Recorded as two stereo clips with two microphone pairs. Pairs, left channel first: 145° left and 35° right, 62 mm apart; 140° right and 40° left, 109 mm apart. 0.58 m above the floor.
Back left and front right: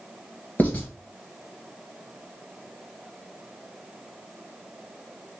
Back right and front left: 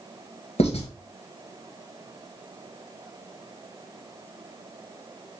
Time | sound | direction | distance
0.6 | writing | 150° right | 1.6 m